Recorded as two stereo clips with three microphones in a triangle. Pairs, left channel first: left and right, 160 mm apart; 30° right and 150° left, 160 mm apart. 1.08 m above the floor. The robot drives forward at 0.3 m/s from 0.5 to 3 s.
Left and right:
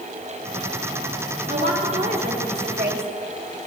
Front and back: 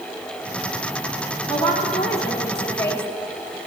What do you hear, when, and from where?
1.5 s a woman speaking: 95° right, 2.5 m; by 3.1 s 105° right, 3 m